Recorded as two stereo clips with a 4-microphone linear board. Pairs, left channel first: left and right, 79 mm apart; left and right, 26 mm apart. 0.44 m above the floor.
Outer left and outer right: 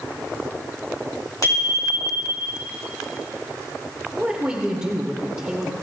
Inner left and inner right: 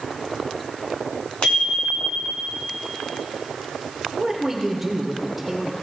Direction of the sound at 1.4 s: 55° left (ahead or behind).